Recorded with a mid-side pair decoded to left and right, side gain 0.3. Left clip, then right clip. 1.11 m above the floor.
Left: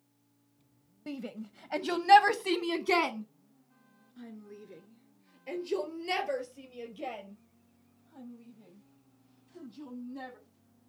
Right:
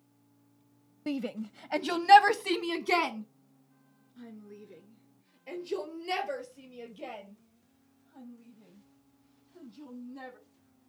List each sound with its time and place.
1.1 s a shout: 60° right, 0.7 m; by 10.4 s 30° left, 6.5 m